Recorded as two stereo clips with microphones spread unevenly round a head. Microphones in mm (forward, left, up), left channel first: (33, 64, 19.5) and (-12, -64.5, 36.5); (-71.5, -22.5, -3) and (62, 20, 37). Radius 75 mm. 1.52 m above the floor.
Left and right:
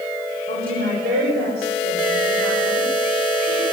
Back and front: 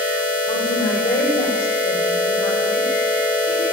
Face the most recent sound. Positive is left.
turn(degrees=-110)